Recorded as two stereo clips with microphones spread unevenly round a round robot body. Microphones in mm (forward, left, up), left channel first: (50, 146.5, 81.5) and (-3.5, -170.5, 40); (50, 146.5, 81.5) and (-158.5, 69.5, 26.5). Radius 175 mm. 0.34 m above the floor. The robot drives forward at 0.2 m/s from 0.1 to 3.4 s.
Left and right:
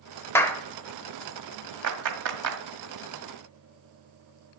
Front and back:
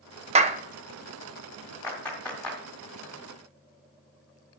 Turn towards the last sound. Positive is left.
turn(degrees=-80)